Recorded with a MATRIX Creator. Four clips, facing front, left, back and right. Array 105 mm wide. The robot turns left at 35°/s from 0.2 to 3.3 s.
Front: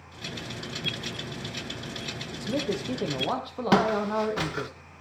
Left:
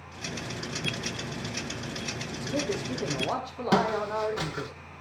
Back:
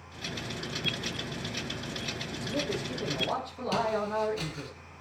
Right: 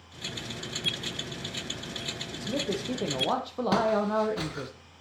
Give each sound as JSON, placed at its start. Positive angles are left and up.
{"t": 2.4, "sound": "a man speaking", "azimuth_deg": -20, "distance_m": 4.5}
{"t": 3.7, "sound": "footsteps", "azimuth_deg": 10, "distance_m": 1.4}